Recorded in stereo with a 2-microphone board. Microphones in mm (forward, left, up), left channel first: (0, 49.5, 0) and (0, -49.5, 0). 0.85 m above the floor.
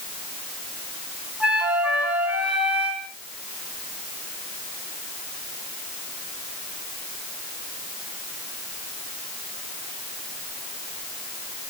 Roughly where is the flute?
Centre.